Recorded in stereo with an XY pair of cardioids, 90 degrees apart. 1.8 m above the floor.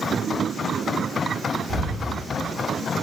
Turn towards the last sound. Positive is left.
turn(degrees=-35)